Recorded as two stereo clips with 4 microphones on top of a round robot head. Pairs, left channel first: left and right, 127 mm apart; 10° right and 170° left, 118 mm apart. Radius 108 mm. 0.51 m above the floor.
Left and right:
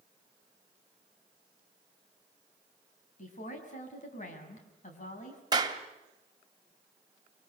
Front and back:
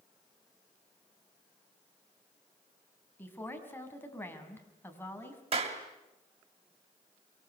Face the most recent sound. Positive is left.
turn(degrees=-150)